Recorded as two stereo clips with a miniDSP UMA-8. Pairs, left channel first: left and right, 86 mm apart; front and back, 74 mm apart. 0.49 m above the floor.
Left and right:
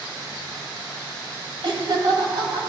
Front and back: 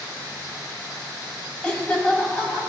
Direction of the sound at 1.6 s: 75° right.